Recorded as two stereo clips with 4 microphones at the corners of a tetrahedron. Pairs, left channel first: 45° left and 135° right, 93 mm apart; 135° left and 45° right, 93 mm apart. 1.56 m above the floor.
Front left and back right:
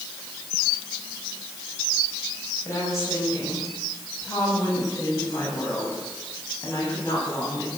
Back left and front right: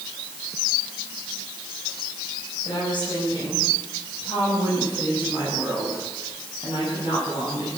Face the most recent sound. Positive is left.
turn(degrees=110)